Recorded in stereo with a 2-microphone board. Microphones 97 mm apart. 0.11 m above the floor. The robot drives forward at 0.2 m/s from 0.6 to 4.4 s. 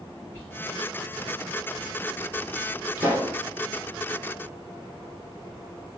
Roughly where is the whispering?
Centre.